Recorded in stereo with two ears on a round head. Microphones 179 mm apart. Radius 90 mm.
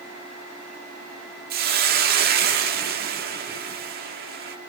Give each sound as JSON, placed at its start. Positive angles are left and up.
{"t": 1.5, "sound": "a hiss", "side_deg": -50, "distance_m": 1.7}